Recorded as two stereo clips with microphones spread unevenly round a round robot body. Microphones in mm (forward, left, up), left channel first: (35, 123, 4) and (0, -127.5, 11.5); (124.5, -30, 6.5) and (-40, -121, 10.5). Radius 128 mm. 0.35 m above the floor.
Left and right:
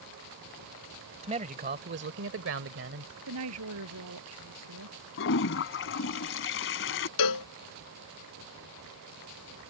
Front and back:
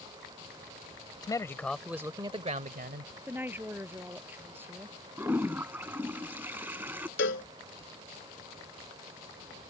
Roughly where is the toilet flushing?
Behind left.